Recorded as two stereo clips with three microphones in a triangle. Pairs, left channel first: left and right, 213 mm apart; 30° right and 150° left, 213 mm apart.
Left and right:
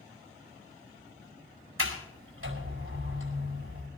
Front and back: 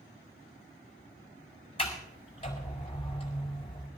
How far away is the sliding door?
About 4.5 m.